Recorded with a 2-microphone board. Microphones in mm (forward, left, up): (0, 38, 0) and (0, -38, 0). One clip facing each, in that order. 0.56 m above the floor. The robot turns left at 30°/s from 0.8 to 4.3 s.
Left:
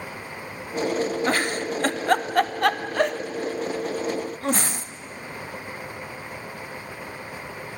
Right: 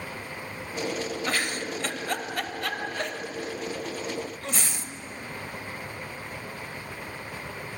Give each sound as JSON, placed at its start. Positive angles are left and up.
{"t": 1.3, "sound": "a giggle", "side_deg": 35, "distance_m": 0.5}